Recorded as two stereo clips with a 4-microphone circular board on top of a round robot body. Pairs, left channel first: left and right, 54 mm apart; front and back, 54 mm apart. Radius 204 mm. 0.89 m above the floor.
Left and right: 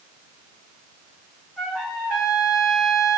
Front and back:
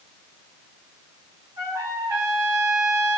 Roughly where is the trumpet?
Behind.